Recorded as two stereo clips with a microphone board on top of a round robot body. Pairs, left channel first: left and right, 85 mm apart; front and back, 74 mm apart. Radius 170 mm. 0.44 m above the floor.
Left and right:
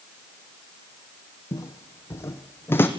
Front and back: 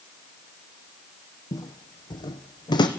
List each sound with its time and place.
1.5 s footsteps: 35° left, 1.4 m; by 2.9 s 25° left, 2 m